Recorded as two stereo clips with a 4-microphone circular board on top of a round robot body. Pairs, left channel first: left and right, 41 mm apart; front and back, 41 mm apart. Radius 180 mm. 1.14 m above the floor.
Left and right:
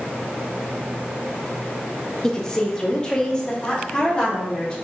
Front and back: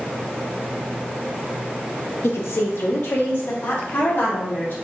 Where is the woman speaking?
10° left, 0.6 m; by 4.8 s 20° left, 1.9 m.